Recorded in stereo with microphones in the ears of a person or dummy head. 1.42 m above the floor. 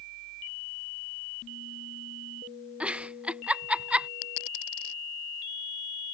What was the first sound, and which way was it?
A giggle, 5° right (ahead or behind).